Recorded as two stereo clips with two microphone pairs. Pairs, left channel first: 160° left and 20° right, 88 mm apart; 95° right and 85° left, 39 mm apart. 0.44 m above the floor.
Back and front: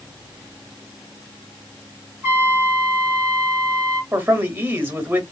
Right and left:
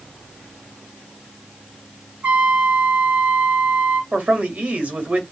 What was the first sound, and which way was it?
A trumpet, 45° left.